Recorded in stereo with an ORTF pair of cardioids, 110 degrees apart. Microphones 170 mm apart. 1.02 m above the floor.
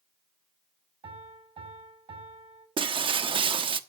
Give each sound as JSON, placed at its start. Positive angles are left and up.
{"t": 1.0, "sound": "a piano", "azimuth_deg": -35, "distance_m": 6.5}
{"t": 2.8, "sound": "breaking glass", "azimuth_deg": -30, "distance_m": 1.0}